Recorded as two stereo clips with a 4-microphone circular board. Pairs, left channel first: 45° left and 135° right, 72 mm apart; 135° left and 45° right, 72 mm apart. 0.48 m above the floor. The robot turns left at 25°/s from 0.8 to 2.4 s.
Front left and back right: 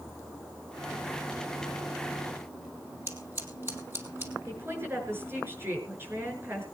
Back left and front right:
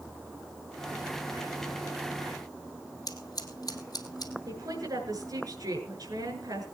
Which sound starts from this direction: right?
A woman speaking, at 4.5 s.